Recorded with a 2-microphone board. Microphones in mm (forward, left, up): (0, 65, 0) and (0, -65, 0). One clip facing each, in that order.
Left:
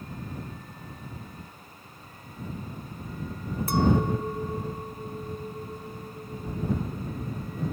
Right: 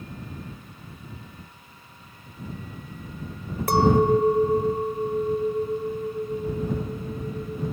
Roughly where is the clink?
Right.